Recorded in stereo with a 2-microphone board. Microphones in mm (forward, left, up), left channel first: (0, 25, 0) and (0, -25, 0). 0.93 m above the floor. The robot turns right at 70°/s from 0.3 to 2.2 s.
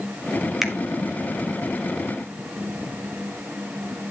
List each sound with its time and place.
0.6 s a finger snap: 5° right (ahead or behind), 1.4 m; by 0.7 s centre (ahead or behind), 1.4 m